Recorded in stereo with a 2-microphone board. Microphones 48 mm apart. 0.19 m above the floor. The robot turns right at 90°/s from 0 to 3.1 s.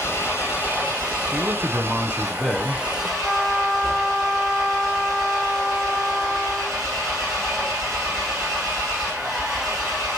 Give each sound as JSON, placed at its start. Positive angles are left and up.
{"t": 0.0, "sound": "an engine running", "azimuth_deg": 90, "distance_m": 6.5}
{"t": 1.3, "sound": "a man speaking", "azimuth_deg": -95, "distance_m": 1.5}
{"t": 3.2, "sound": "a trumpet", "side_deg": 0, "distance_m": 7.0}